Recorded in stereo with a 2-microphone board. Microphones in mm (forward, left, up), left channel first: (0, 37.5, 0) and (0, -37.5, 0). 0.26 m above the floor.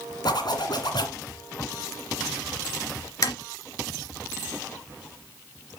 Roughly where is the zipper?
Left.